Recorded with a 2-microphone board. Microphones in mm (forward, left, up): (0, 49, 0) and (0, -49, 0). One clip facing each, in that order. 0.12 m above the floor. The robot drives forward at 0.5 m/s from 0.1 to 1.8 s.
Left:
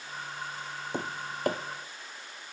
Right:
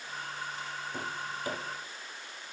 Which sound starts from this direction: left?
Tapping, at 0.9 s.